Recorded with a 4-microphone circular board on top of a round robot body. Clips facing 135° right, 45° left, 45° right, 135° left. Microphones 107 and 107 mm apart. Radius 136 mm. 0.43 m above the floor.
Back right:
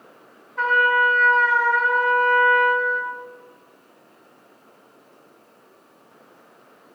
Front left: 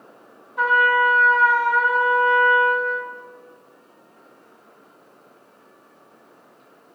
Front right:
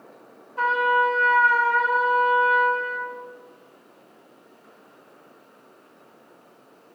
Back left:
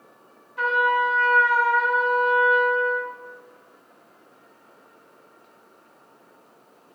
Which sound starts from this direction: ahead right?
A trumpet, at 0.6 s.